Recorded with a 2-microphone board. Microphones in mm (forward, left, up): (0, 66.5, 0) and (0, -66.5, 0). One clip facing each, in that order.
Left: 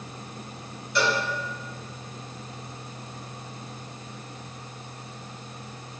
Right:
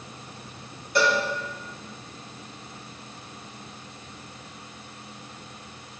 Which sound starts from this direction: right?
A cowbell, at 0.9 s.